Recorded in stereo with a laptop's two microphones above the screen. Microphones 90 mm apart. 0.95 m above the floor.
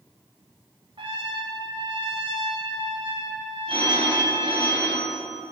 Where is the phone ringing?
65° right (ahead or behind), 3.5 m.